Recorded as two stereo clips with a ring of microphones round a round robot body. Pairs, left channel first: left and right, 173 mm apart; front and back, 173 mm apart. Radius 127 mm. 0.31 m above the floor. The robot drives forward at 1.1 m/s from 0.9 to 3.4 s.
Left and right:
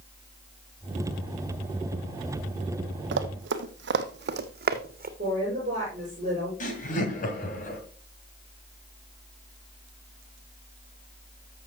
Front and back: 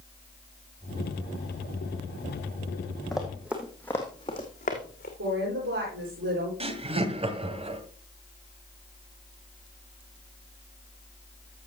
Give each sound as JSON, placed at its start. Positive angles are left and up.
{"t": 3.1, "sound": "running footsteps", "azimuth_deg": -90, "distance_m": 1.1}
{"t": 5.2, "sound": "a woman speaking", "azimuth_deg": -155, "distance_m": 7.5}
{"t": 6.6, "sound": "laughter", "azimuth_deg": 130, "distance_m": 2.0}